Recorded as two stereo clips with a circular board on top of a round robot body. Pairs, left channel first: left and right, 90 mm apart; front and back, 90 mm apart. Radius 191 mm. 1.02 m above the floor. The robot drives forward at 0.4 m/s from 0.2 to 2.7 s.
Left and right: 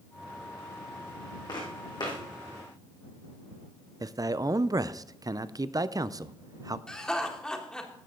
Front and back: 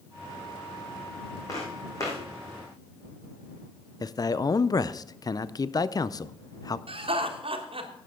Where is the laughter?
175° left, 1.5 m.